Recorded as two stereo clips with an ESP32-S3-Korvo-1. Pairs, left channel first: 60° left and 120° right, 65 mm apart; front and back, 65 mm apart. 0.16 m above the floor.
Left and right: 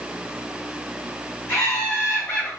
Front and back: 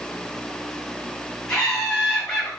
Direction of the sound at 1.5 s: 70° left.